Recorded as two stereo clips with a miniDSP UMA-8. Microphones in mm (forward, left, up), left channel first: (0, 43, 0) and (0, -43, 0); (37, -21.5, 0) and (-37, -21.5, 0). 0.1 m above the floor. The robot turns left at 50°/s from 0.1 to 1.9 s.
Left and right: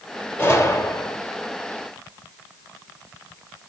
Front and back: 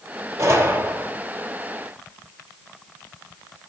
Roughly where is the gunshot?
Behind left.